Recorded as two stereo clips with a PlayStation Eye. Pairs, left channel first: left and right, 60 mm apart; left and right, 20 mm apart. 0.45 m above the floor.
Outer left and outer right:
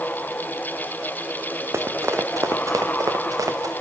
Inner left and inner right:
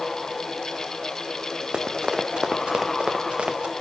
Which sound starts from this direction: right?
Running footsteps, at 1.7 s.